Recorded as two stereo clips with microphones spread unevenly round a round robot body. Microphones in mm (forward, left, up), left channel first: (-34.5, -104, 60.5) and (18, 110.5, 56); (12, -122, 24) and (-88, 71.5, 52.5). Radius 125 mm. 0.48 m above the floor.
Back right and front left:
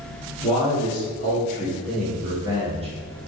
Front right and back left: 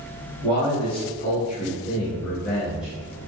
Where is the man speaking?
55° right, 1.4 m; by 2.9 s 25° left, 1.1 m.